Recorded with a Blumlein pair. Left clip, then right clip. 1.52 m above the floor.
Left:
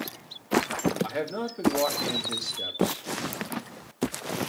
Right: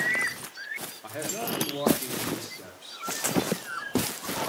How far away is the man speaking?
About 3.5 m.